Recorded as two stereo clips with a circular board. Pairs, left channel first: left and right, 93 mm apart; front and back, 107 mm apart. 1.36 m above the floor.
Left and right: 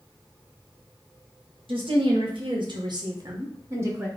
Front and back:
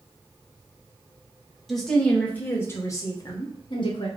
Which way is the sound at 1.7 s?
90° right.